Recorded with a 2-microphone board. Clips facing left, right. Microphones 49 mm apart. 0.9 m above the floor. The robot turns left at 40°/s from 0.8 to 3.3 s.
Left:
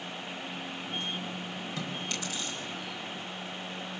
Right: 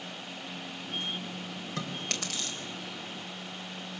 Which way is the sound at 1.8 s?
55° right (ahead or behind).